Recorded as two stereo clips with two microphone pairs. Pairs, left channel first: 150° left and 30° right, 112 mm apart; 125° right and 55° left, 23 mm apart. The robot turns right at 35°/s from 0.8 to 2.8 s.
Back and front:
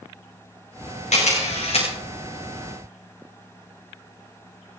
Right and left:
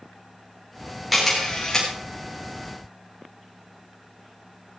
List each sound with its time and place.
1.1 s a camera shutter: 150° left, 8.5 m; by 1.9 s straight behind, 8.5 m